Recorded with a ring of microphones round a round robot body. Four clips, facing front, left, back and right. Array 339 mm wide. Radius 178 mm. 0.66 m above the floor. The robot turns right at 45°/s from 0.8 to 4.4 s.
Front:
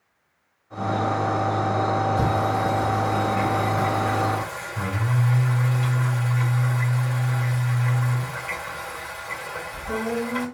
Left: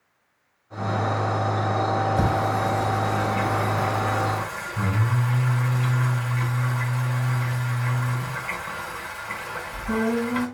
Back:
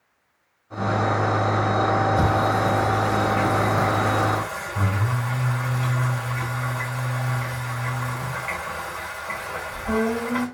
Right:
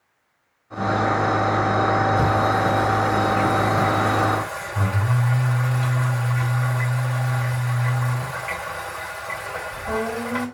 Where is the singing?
140° left, 3 m; by 10.4 s 120° right, 3 m.